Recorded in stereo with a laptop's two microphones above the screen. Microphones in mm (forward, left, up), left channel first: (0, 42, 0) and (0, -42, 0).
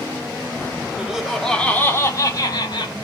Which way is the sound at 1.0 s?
10° right (ahead or behind).